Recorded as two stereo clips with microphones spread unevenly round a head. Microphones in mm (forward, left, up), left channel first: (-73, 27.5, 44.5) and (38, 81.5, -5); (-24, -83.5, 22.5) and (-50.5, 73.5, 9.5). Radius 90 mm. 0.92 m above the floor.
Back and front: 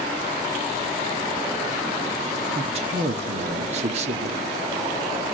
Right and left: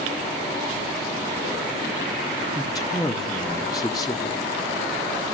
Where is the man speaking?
10° right, 1.5 m.